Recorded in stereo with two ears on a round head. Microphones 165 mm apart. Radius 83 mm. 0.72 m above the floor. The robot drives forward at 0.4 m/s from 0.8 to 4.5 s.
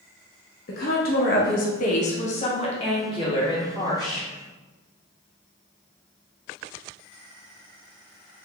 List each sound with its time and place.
0.7 s a woman speaking: 50° left (ahead or behind), 0.6 m; by 4.3 s 20° left (ahead or behind), 1.5 m